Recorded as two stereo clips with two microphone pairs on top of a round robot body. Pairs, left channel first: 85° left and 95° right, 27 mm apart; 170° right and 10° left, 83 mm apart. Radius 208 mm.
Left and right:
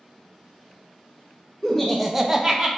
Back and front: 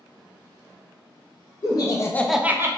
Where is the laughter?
160° left, 0.8 m; by 2.7 s 35° right, 0.8 m.